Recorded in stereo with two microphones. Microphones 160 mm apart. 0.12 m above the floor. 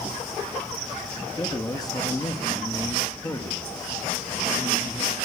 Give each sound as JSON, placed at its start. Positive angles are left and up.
{"t": 1.4, "sound": "a man speaking", "side_deg": 25, "distance_m": 2.5}